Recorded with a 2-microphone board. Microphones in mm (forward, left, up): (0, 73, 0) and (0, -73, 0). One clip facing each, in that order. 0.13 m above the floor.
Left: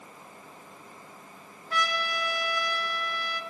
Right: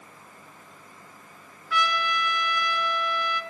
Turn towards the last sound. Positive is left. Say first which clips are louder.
# right 4 dB
turn(degrees=40)  # may be behind; listen again after turning